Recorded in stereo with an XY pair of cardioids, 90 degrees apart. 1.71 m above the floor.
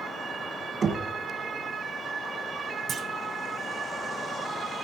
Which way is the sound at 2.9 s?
60° right.